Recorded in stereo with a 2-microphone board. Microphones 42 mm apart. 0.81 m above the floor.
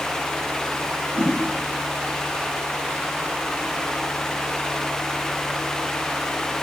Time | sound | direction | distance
1.1 | a whoosh | 60° right (ahead or behind) | 4 m